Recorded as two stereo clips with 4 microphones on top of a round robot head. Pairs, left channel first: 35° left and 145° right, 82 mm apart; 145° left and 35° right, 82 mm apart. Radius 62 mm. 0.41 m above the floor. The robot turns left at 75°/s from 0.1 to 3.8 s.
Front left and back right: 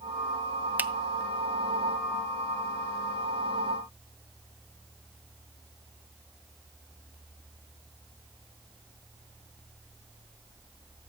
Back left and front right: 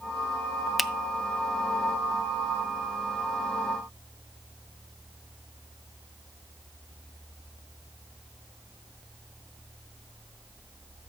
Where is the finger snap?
120° right, 0.6 m; by 0.9 s 125° right, 0.6 m.